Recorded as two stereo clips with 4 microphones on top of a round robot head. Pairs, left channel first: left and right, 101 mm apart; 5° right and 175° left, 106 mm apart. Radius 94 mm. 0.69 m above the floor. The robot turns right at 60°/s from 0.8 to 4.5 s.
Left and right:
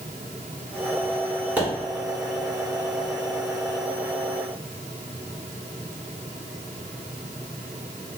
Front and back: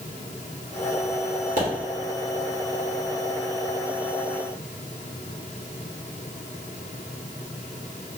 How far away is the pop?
About 1.5 m.